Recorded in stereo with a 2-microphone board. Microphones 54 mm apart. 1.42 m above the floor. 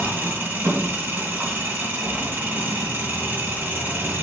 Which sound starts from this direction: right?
An engine running, at 0.0 s.